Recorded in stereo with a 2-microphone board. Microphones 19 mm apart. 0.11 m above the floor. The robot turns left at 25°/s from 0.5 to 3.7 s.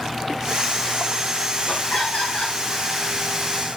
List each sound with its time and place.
1.7 s laughter: 65° left (ahead or behind), 6.5 m; by 2.6 s 80° left, 6.5 m